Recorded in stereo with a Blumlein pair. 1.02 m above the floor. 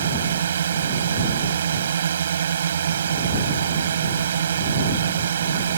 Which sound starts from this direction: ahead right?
A drone, at 0.0 s.